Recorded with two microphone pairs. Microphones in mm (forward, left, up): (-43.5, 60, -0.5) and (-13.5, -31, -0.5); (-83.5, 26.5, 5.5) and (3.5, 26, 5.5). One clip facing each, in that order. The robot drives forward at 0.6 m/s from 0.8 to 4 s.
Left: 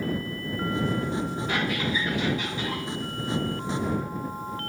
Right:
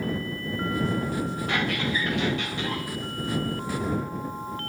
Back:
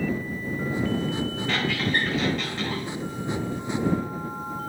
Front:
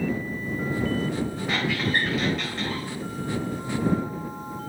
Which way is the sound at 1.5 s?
80° right.